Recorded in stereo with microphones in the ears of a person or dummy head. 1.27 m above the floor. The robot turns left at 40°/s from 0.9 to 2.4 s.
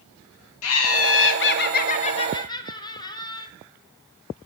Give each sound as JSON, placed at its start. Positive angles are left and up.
{"t": 0.6, "sound": "laughter", "azimuth_deg": 80, "distance_m": 1.0}